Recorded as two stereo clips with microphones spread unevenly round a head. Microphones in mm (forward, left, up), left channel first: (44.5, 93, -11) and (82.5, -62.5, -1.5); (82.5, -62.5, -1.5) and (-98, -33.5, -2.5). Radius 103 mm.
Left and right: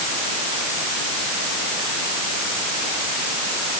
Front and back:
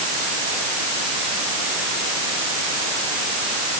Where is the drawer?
No drawer in this recording.